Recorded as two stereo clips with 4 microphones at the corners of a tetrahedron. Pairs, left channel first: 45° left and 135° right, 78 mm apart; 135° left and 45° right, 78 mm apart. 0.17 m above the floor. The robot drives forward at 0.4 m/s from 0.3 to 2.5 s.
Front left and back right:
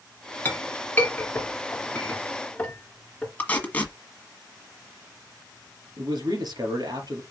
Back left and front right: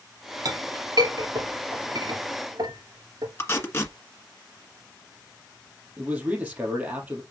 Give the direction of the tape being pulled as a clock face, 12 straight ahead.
9 o'clock.